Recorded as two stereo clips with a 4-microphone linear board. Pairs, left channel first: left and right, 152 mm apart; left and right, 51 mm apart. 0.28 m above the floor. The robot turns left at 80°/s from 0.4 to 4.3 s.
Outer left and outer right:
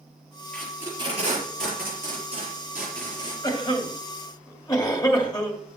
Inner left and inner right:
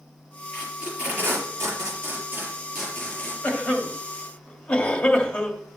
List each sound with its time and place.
0.5 s tape being pulled: 5° left (ahead or behind), 4.5 m; by 3.3 s 35° left (ahead or behind), 4.5 m
3.4 s a cough: 25° left (ahead or behind), 1.8 m; by 5.6 s 30° left (ahead or behind), 1.8 m